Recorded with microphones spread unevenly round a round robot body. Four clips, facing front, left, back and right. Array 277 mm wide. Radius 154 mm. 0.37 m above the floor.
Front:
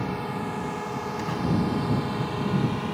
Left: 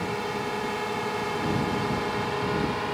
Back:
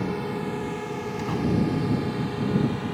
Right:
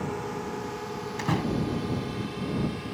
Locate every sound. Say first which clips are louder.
0.0 s a drone: left 3 dB, back 1 dB; 165° left; by 3.0 s 90° left
1.2 s a door slam: even, back 4 dB; 115° right